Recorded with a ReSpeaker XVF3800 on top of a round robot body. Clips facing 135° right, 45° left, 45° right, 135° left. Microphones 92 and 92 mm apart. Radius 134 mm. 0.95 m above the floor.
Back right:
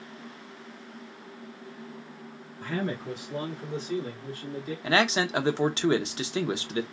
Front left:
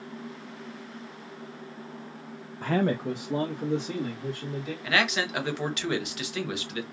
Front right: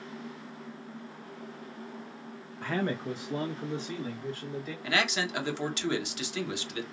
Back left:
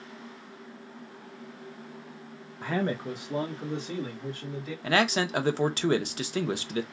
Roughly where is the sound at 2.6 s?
Ahead left.